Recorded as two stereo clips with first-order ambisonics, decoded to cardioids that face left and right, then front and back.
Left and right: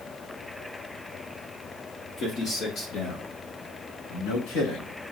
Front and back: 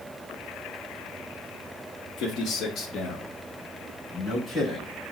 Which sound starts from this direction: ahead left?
A man speaking, at 2.2 s.